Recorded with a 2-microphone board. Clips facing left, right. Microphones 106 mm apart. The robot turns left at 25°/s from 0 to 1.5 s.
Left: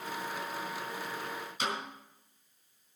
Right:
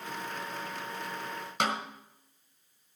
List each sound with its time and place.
1.6 s a snare drum: 75° right (ahead or behind), 1.9 m